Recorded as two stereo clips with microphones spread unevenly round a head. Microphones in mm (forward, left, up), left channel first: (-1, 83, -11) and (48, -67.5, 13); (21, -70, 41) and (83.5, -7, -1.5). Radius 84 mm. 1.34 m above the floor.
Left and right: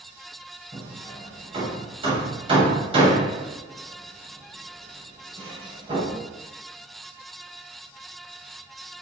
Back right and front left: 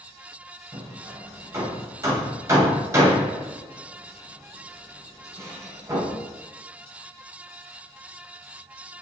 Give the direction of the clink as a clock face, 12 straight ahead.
No clink in this recording.